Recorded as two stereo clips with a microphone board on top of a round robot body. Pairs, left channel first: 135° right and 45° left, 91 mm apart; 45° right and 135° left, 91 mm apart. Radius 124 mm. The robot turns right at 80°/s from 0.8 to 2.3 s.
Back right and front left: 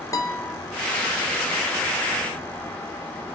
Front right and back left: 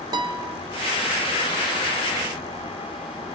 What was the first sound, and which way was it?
A guitar, 175° left.